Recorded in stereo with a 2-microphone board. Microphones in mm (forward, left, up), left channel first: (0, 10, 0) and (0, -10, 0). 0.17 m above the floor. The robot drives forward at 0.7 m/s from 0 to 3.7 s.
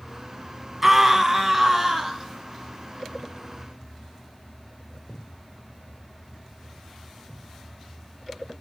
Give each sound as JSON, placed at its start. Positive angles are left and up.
{"t": 0.8, "sound": "a scream", "side_deg": -15, "distance_m": 1.1}